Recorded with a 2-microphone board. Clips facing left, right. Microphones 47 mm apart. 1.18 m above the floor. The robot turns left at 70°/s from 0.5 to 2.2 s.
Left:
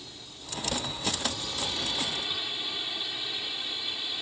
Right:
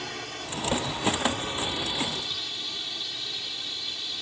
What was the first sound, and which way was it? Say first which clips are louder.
A drone: right 11 dB; 75° right.